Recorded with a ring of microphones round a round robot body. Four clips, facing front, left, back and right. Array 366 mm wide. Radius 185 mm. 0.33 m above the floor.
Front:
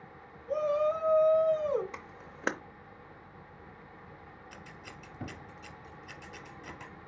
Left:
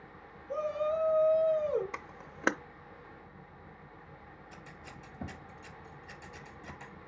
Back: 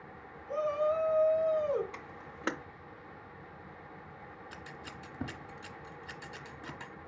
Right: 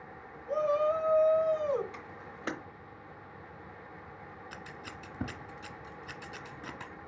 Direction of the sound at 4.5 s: 95° right.